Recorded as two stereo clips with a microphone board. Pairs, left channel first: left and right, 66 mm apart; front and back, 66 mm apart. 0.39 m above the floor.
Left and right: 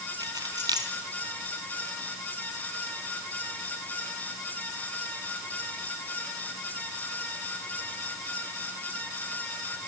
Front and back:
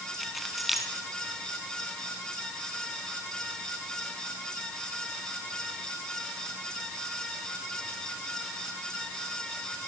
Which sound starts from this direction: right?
Keys jangling, at 0.2 s.